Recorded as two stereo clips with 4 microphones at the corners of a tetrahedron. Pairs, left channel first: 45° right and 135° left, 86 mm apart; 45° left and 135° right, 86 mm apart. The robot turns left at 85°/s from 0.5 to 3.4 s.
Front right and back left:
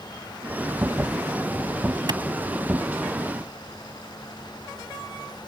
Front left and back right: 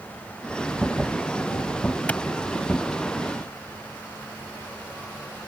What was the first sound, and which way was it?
A clap, 115° left.